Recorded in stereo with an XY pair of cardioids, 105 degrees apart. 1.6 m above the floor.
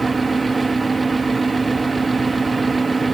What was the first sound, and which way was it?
A fan, 20° right.